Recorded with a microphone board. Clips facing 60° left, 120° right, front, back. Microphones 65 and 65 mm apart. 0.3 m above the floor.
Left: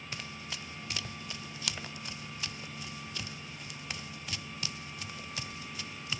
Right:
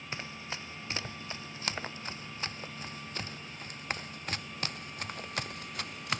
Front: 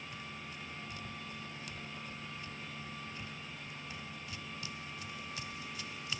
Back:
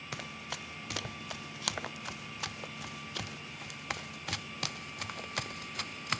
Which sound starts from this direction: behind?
Running footsteps, at 0.1 s.